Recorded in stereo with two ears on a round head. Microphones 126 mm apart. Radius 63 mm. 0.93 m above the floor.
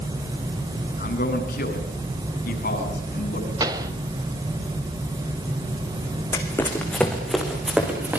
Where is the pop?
30° right (ahead or behind), 1.7 m.